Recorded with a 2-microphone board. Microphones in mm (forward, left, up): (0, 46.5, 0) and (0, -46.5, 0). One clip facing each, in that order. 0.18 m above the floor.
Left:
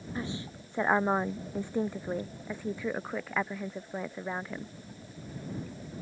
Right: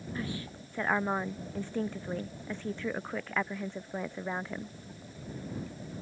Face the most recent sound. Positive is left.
turn(degrees=0)  # may be behind; listen again after turning